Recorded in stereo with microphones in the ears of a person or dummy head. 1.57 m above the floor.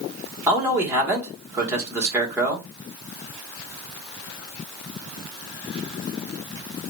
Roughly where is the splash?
No splash in this recording.